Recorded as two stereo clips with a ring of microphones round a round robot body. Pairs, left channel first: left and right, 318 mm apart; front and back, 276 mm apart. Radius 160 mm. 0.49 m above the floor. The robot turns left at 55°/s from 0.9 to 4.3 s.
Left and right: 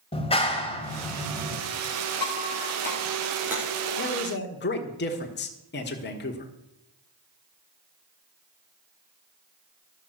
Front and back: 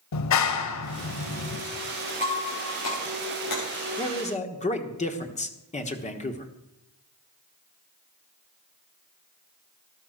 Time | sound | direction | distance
0.1 | a clap | 15° left | 1.8 m
2.2 | breaking glass | 65° left | 9.5 m
4.0 | a man speaking | 70° left | 1.4 m